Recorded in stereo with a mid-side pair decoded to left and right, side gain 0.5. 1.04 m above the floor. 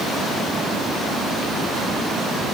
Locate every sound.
Only background noise.